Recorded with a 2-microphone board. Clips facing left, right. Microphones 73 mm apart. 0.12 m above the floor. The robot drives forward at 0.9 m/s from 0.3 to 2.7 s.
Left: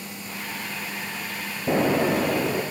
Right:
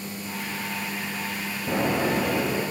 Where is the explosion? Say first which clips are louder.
Left 3 dB; 35° left (ahead or behind), 1.1 m; by 2.6 s 20° left (ahead or behind), 1.7 m.